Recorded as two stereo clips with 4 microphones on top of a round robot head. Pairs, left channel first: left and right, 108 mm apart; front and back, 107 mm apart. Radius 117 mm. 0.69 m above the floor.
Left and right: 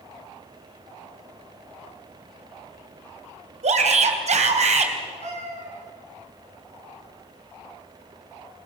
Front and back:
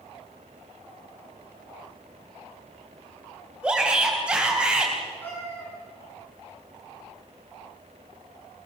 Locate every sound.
3.6 s a shout: 100° right, 4 m
5.2 s a cat meowing: 75° right, 7 m